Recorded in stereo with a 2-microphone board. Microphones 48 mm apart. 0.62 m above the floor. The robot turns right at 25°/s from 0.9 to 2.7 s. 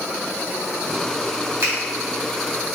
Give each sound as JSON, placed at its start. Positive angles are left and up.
{"t": 1.6, "sound": "a finger snap", "side_deg": -55, "distance_m": 1.9}